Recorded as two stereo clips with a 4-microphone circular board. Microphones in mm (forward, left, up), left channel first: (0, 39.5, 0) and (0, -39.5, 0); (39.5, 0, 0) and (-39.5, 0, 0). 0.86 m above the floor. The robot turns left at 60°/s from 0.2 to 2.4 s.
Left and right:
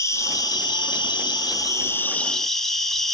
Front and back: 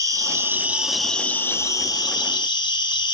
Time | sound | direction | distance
0.0 | an insect | 135° left | 2 m